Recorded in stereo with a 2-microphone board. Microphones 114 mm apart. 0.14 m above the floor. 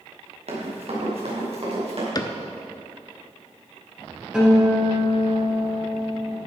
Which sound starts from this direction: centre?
A guitar, at 4.3 s.